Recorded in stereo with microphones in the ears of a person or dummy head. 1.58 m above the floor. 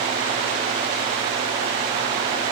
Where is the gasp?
I don't hear a gasp.